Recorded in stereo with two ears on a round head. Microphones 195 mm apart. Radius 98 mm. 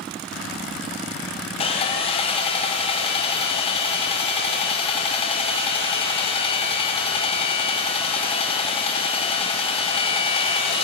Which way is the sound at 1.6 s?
25° left (ahead or behind).